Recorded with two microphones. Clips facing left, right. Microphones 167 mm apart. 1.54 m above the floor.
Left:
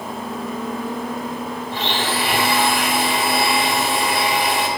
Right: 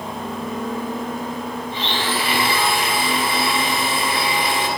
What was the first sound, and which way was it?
A blender, 80° left.